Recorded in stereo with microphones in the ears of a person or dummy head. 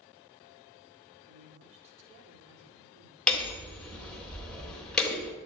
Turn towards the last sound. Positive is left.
turn(degrees=5)  # may be behind; listen again after turning